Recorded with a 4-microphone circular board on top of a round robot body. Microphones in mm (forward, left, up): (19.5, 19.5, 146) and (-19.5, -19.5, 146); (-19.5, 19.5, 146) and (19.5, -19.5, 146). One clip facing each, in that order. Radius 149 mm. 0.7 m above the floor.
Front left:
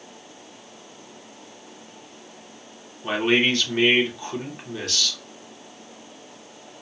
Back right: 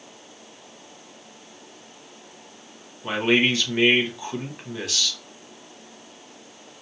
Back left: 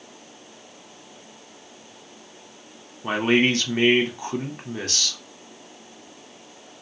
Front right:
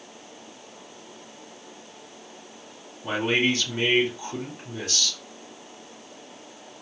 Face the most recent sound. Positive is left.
turn(degrees=140)